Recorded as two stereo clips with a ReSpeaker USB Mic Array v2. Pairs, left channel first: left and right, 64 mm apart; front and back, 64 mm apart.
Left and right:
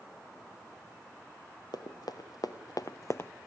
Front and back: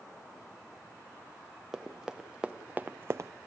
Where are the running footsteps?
95° left, 1.6 m; by 3.3 s 150° left, 0.5 m.